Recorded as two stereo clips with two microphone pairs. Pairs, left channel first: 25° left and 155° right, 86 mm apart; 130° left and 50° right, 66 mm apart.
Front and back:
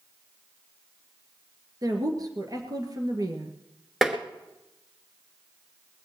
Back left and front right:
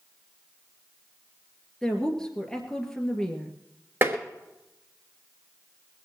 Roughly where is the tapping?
Ahead right.